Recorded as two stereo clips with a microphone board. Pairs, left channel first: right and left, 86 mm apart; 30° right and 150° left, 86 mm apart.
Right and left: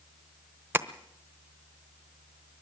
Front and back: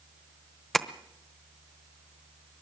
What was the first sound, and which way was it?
Tapping, 50° left.